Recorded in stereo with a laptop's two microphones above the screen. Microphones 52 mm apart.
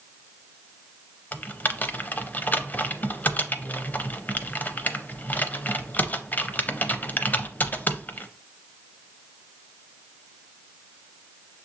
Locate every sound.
1.3 s typing on a keyboard: 30° left (ahead or behind), 0.5 m